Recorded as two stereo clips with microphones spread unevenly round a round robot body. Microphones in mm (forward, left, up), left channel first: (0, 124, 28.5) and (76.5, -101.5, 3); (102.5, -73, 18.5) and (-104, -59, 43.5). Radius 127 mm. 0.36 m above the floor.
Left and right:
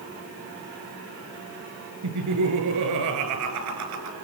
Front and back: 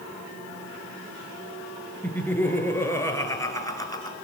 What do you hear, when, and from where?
2.0 s laughter: 85° right, 5 m; by 4.2 s 75° right, 4.5 m